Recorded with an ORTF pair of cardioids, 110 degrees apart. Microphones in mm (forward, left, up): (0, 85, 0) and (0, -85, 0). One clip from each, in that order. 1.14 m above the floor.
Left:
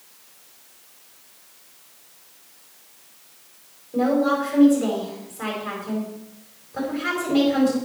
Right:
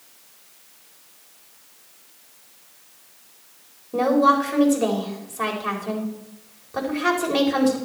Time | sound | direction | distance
3.9 | a woman speaking | 60° right | 4.5 m